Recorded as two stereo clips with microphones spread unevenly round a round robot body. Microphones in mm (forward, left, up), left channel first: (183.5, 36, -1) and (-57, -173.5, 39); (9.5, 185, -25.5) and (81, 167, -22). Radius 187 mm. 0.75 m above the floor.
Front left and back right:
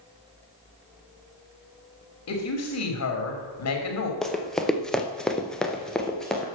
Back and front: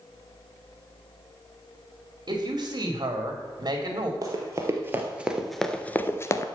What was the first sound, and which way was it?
A woman speaking, 15° left.